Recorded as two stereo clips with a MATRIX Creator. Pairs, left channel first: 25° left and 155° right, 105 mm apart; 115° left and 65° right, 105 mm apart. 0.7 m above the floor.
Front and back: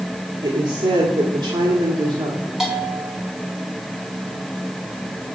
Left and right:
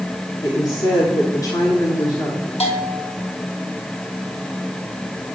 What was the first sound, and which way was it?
A woman speaking, 165° left.